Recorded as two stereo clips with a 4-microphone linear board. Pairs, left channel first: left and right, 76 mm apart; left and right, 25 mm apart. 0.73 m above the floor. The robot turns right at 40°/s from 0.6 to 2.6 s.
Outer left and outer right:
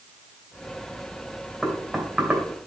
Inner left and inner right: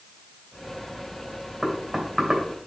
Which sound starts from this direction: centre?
Knocking, at 1.6 s.